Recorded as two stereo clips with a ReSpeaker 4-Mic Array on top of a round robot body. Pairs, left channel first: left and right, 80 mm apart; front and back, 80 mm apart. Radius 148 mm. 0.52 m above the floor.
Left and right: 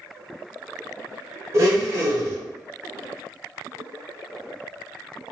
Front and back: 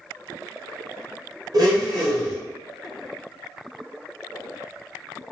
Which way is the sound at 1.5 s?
140° right.